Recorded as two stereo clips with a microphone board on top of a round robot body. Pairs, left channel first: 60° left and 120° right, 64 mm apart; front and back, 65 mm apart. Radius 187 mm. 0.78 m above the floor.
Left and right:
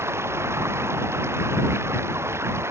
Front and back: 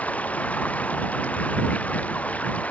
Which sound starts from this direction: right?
Running water, at 0.0 s.